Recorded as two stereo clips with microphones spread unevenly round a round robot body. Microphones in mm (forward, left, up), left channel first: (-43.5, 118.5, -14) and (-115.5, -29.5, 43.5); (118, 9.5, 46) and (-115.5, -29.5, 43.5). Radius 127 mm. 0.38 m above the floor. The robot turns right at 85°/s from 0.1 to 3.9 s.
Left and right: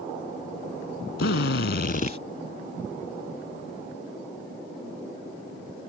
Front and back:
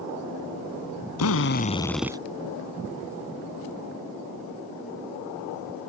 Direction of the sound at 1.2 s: 30° left.